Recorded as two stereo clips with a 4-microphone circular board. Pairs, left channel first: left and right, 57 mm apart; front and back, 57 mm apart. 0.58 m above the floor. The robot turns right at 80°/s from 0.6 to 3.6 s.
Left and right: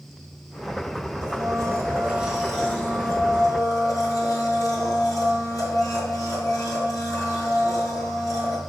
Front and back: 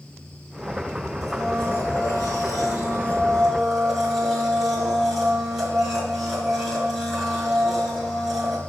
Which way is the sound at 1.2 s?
95° right.